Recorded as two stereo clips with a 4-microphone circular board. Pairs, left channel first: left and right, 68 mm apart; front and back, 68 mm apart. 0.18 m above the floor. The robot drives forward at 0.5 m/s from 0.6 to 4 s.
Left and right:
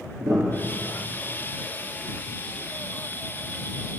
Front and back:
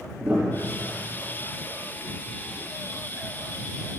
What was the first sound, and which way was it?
A piano, 115° right.